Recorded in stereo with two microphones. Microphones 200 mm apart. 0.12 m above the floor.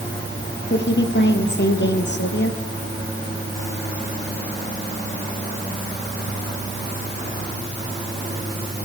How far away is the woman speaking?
About 3.5 m.